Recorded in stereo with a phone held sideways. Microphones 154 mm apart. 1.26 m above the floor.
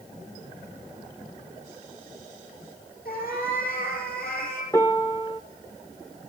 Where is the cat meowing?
70° left (ahead or behind), 5 m.